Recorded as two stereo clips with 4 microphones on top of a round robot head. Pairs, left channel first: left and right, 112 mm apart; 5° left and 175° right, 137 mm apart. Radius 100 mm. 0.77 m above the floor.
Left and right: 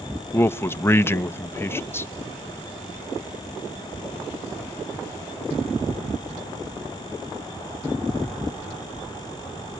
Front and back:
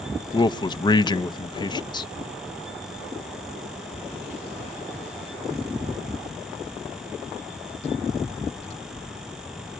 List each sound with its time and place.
0.3 s a man speaking: 35° left, 0.7 m